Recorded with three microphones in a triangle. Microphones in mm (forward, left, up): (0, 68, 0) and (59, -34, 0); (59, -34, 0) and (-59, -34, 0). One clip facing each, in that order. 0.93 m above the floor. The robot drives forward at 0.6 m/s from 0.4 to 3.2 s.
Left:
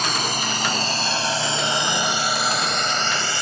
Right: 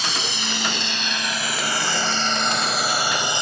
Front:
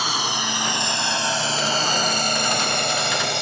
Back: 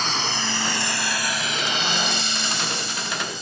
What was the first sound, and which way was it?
A drone, 80° left.